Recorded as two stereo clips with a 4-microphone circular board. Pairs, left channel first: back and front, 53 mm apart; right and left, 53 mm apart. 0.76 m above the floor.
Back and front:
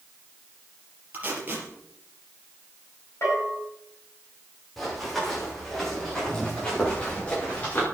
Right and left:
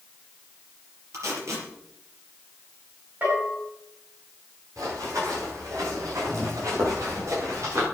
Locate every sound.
1.1 s tape being pulled: 60° left, 4.5 m
3.2 s a bell: 140° left, 8.5 m
4.8 s running footsteps: 95° left, 9 m; by 7.8 s 120° left, 7 m